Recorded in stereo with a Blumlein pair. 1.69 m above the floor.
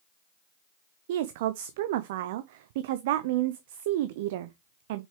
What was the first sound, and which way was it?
A woman speaking, 50° right.